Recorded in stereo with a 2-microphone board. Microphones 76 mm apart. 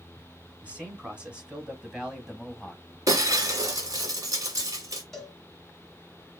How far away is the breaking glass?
About 1.7 m.